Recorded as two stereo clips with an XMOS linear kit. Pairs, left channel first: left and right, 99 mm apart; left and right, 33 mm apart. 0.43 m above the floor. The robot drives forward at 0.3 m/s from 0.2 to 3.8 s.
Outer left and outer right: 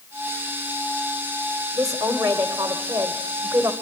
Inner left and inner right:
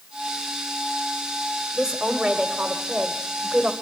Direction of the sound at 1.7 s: 35° right (ahead or behind).